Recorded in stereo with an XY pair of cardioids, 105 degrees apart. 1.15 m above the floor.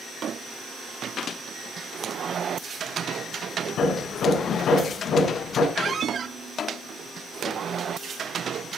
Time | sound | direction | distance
3.8 | hammering | 65° left | 7.5 m
5.8 | a squeak | 45° right | 0.8 m